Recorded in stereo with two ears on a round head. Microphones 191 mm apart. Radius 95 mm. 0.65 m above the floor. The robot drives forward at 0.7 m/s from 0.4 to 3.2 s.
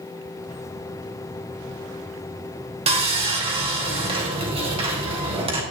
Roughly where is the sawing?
Right.